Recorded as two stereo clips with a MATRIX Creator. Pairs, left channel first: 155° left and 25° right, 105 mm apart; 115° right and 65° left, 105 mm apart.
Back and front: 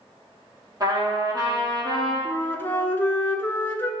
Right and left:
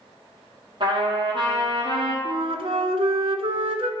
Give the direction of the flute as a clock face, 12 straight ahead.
9 o'clock.